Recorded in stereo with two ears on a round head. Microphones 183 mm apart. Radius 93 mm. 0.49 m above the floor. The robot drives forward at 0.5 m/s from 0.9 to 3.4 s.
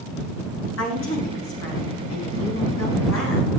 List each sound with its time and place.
0.8 s a woman speaking: 65° left (ahead or behind), 4.5 m; by 3.5 s 75° left (ahead or behind), 4.5 m